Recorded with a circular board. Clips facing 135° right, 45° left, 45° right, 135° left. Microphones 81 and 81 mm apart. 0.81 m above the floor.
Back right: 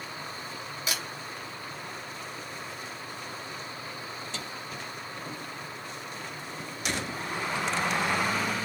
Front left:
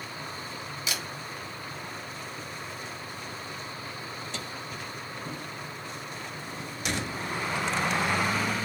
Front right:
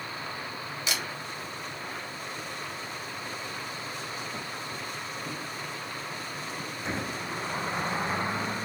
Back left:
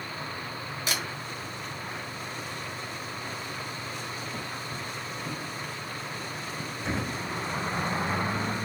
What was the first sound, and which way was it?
A camera shutter, 175° left.